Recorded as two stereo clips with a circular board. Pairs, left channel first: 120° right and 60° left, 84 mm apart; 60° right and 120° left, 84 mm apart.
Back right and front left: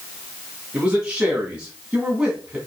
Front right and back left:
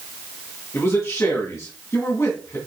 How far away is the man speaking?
About 2.5 m.